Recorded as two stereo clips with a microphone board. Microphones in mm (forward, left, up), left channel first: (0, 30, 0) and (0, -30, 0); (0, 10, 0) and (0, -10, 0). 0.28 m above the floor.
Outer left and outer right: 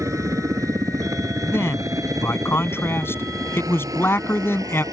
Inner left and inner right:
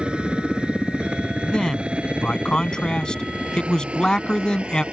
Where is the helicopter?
60° right (ahead or behind); by 5.0 s 75° right (ahead or behind).